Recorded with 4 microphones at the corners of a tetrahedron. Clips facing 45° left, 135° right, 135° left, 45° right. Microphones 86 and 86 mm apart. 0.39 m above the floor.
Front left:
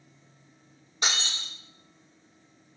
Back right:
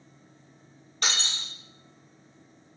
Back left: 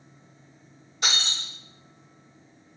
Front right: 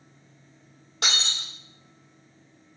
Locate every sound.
1.0 s breaking glass: 30° right, 1.2 m